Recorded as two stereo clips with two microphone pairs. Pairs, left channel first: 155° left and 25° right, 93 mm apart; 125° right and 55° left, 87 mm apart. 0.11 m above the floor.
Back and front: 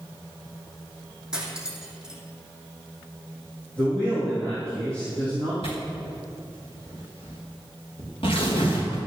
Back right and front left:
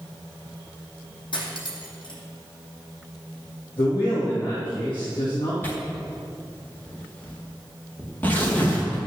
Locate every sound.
1.3 s cutlery clinking: 110° right, 2.5 m
3.8 s a man speaking: 130° right, 4.5 m
5.6 s tearing paper: 165° left, 4.5 m